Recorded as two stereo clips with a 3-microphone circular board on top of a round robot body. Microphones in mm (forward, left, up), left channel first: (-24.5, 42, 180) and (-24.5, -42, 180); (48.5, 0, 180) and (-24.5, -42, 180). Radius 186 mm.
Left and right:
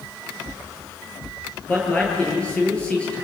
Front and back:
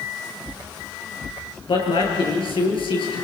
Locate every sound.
1.7 s a man speaking: 15° left, 7.5 m